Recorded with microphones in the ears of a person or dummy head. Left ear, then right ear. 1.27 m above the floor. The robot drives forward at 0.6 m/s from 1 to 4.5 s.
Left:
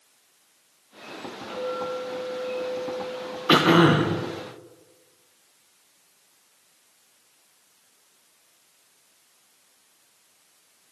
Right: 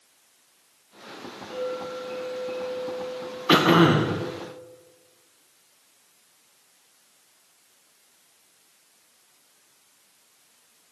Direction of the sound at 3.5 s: Centre (ahead or behind).